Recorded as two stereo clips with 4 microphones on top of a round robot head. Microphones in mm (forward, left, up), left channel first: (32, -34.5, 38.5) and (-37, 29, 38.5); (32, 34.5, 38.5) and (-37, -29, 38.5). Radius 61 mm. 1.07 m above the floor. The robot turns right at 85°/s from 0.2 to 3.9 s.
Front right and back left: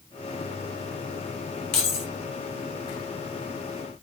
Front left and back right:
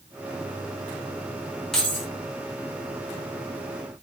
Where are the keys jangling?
45° right, 0.7 m; by 2.1 s 10° right, 0.7 m.